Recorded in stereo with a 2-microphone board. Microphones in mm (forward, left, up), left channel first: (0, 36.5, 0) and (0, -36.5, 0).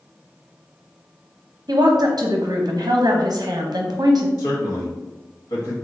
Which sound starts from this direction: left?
A man speaking, at 4.4 s.